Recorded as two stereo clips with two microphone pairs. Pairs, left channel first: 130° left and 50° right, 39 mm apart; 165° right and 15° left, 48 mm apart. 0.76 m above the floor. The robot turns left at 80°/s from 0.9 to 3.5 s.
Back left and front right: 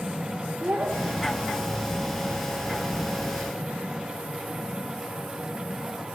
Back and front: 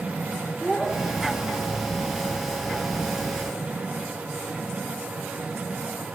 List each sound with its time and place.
0.6 s a child speaking: 85° right, 1.7 m; by 1.8 s 155° right, 1.7 m